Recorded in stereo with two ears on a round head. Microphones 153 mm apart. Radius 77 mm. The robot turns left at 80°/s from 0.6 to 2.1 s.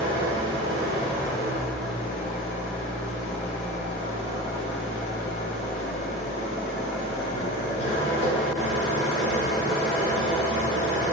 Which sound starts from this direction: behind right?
An engine running, at 0.0 s.